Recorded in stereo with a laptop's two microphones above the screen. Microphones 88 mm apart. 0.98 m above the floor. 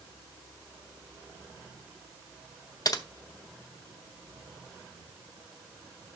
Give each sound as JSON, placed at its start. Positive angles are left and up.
{"t": 2.9, "sound": "typing on a keyboard", "side_deg": 45, "distance_m": 0.6}